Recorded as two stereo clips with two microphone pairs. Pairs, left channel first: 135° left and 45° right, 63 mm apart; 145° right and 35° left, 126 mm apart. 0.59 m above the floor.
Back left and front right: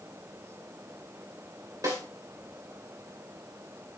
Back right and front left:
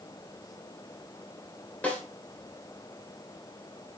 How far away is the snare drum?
About 2.5 m.